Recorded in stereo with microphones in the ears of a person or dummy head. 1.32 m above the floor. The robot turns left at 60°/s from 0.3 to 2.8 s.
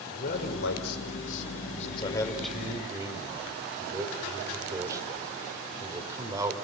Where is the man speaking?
130° left, 5 m; by 6.5 s 20° right, 5 m.